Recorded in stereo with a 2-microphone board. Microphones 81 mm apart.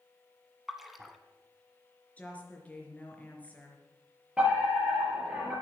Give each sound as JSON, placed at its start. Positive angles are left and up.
{"t": 0.7, "sound": "a splash", "side_deg": 0, "distance_m": 1.3}
{"t": 2.2, "sound": "a woman speaking", "side_deg": 20, "distance_m": 3.5}
{"t": 4.4, "sound": "a fire alarm", "side_deg": -10, "distance_m": 6.5}